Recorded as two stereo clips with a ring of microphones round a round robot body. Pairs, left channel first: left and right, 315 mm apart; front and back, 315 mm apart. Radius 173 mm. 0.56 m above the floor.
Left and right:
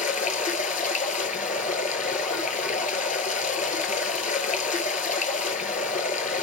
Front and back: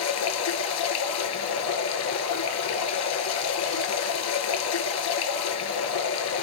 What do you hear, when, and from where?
0.0 s running water: 30° left, 0.8 m